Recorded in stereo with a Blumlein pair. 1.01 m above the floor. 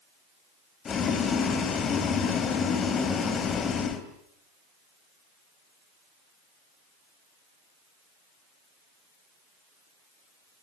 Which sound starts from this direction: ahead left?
Boiling, at 0.8 s.